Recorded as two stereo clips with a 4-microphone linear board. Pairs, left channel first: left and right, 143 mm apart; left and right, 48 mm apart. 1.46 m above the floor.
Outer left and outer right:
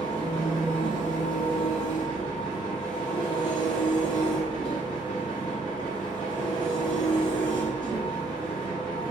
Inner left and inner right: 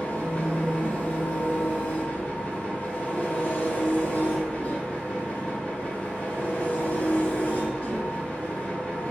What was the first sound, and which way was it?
An engine running, 35° left (ahead or behind).